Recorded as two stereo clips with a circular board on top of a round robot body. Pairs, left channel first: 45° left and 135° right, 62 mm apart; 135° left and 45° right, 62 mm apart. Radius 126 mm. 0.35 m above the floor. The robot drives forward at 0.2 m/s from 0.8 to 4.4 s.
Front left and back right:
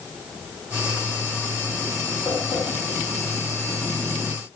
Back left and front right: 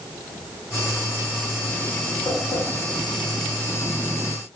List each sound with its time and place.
2.2 s tapping: 125° left, 1.1 m; by 2.6 s 130° left, 1.1 m